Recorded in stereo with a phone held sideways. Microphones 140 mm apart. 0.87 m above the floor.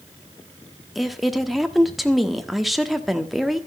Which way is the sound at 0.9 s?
Centre (ahead or behind).